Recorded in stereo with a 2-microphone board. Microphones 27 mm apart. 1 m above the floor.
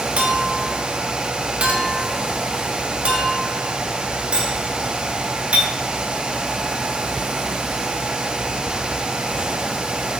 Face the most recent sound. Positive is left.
turn(degrees=-50)  # may be behind; listen again after turning